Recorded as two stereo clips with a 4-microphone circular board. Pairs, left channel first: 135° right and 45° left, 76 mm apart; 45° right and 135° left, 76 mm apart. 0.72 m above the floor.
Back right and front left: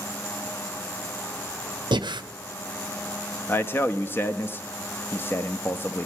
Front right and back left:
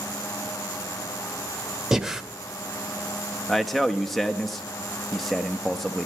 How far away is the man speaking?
About 0.5 m.